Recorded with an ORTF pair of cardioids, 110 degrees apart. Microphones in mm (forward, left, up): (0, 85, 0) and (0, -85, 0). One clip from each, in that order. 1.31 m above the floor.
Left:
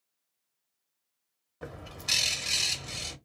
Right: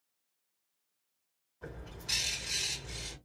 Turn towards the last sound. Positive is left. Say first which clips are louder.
# left 6 dB
turn(degrees=70)